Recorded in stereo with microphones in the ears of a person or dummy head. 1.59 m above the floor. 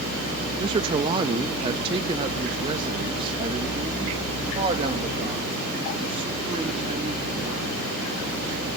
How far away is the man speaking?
About 0.8 m.